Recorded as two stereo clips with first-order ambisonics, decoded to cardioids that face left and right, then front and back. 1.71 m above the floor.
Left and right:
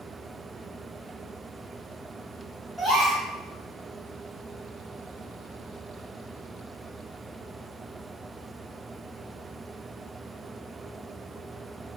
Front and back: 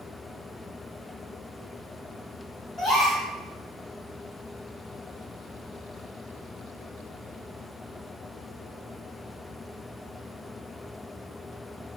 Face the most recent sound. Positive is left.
turn(degrees=5)